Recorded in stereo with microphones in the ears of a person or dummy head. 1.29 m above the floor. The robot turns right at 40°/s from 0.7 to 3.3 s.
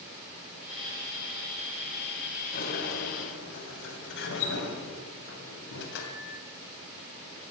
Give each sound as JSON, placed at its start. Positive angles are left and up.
{"t": 2.5, "sound": "a sliding door", "azimuth_deg": 65, "distance_m": 2.5}